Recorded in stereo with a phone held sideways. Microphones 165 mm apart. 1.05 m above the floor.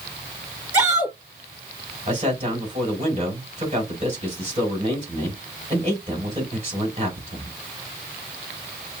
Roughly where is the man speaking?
Right.